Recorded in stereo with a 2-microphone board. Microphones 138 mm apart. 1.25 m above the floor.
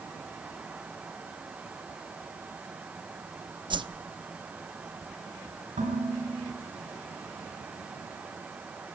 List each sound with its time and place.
3.7 s a whoosh: 35° right (ahead or behind), 0.8 m
5.8 s dishes clattering: 65° right (ahead or behind), 9 m